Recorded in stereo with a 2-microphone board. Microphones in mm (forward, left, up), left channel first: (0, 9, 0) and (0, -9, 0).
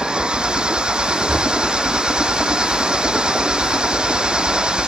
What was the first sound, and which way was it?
An engine running, 60° right (ahead or behind).